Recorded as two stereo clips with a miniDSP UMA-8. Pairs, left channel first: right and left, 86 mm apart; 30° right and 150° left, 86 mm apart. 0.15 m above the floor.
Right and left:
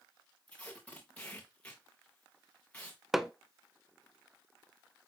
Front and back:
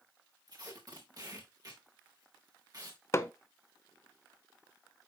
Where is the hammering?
5° left, 0.7 m.